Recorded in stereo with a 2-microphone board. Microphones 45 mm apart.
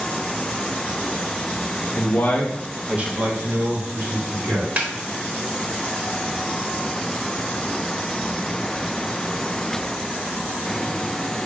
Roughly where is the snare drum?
Right.